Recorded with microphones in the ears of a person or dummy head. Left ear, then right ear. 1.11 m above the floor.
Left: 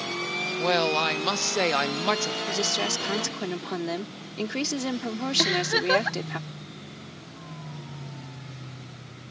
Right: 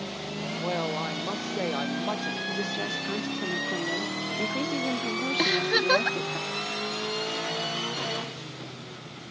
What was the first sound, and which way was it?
A woman speaking, 55° left (ahead or behind).